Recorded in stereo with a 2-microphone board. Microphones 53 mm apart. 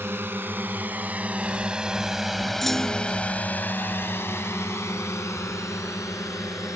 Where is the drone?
45° right (ahead or behind); by 6.8 s 75° left (ahead or behind).